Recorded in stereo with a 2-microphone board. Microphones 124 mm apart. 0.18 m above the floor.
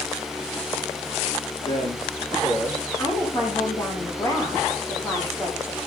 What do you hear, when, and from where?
1.6 s a man speaking: 40° left (ahead or behind), 9.5 m
3.0 s a woman speaking: 25° left (ahead or behind), 9 m